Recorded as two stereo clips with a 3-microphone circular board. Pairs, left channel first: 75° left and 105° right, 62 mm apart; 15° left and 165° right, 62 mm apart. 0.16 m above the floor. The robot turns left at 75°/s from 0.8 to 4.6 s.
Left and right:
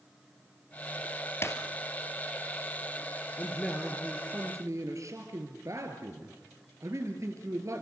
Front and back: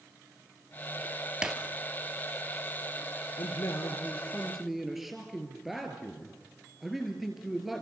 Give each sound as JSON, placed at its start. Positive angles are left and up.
{"t": 1.4, "sound": "breaking glass", "azimuth_deg": 120, "distance_m": 1.6}
{"t": 3.4, "sound": "a man speaking", "azimuth_deg": 15, "distance_m": 2.5}